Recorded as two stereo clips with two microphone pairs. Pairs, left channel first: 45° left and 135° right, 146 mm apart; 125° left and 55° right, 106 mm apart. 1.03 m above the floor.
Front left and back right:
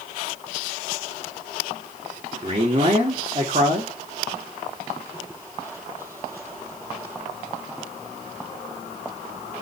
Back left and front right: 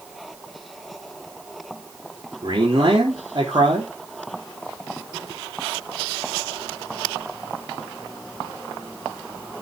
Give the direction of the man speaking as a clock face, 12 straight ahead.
3 o'clock.